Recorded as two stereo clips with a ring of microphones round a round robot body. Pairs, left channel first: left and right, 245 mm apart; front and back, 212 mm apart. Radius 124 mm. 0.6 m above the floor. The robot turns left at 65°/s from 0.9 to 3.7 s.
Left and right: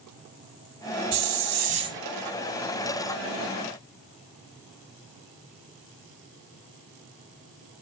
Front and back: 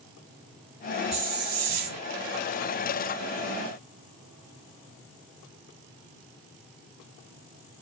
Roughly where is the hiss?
Right.